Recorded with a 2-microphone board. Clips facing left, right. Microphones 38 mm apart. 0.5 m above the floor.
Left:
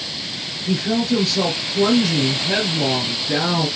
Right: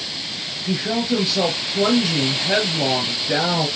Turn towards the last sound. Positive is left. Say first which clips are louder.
# left 2 dB
turn(degrees=-30)  # may be behind; listen again after turning